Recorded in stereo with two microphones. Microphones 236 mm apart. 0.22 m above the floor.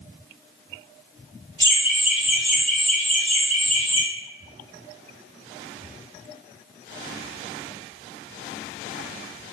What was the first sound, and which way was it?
Laughter, 15° right (ahead or behind).